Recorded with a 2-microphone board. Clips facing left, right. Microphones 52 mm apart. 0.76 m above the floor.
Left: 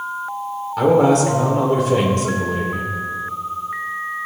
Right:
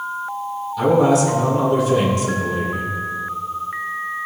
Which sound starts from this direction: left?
A man speaking, at 0.8 s.